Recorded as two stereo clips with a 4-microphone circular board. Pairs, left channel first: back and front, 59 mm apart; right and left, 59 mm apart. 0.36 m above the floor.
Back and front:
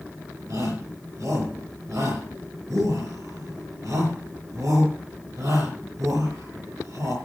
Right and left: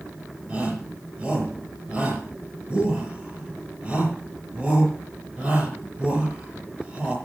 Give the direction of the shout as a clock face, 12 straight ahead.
11 o'clock.